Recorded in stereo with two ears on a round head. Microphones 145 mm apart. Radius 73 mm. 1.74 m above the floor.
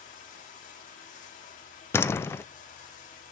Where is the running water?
50° left (ahead or behind), 2.5 m.